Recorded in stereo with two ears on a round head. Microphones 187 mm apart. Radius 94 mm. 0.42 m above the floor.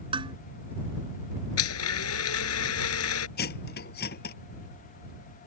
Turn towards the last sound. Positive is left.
turn(degrees=50)  # may be behind; listen again after turning